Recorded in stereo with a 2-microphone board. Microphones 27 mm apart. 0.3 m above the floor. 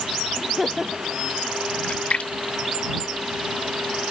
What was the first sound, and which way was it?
Laughter, 5° right (ahead or behind).